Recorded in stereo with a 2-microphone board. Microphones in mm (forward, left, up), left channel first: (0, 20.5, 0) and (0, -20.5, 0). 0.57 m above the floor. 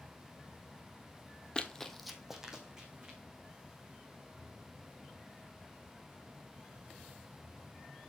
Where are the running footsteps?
25° left (ahead or behind), 0.8 m; by 3.2 s 20° right (ahead or behind), 2.5 m.